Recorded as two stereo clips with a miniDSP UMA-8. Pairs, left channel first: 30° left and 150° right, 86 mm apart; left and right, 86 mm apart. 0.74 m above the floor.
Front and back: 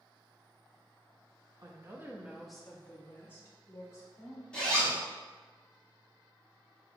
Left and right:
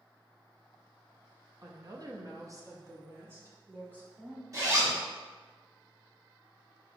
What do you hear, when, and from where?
1.6 s a woman speaking: 120° right, 0.7 m; by 4.4 s 20° right, 1.5 m
4.5 s a zipper: 45° right, 1.5 m